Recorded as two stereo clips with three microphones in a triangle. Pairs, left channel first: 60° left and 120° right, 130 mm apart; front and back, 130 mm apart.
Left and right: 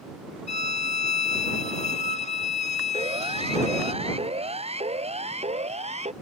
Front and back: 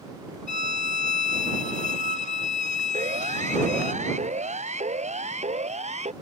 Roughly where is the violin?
Ahead left.